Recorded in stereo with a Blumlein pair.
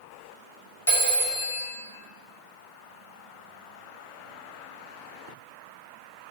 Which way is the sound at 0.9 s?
70° left.